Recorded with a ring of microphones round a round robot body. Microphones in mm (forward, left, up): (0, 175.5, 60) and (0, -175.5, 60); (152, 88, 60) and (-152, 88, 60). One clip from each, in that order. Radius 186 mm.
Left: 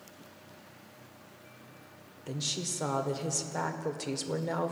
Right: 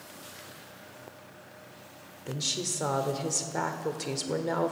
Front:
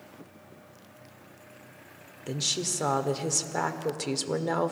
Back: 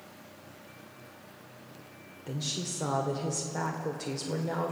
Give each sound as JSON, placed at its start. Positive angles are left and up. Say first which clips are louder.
{"t": 2.3, "sound": "a woman speaking", "louder": "right 3 dB, front 6 dB", "azimuth_deg": -5, "distance_m": 1.8}